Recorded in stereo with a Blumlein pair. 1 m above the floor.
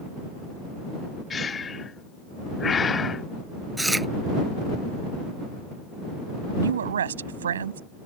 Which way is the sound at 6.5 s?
65° right.